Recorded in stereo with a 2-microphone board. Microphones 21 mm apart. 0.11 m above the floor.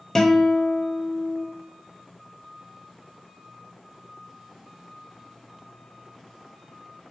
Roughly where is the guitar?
Left.